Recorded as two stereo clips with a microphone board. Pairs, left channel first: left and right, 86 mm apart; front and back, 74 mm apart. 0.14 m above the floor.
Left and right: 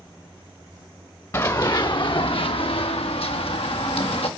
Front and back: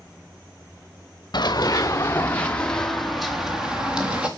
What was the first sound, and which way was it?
Running footsteps, 30° left.